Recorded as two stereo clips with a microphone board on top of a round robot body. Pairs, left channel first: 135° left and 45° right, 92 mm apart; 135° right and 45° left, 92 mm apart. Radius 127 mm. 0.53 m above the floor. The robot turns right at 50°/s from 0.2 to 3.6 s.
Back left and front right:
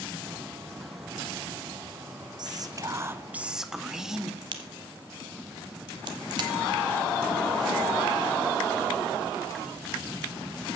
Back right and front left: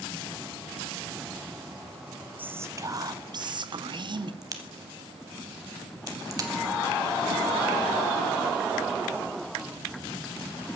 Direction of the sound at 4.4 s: 5° right.